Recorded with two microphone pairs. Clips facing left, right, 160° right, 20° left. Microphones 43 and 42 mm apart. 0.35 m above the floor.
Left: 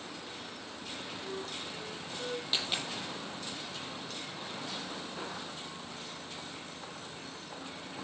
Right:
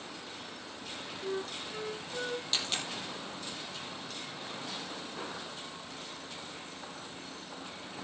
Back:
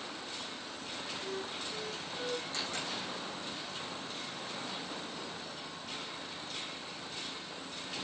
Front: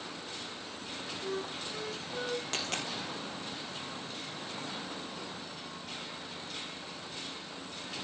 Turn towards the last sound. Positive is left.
turn(degrees=10)